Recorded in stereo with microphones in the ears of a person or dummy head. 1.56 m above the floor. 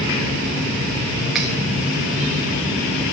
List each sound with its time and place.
1.4 s cutlery clinking: centre (ahead or behind), 0.7 m